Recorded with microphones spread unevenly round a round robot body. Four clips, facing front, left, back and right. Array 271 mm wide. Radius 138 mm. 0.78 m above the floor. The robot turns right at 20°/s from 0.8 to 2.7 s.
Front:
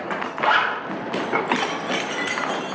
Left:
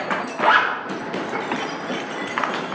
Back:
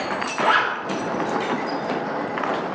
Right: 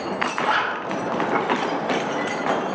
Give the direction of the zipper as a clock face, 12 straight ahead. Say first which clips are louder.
Left 7 dB, even; 8 o'clock.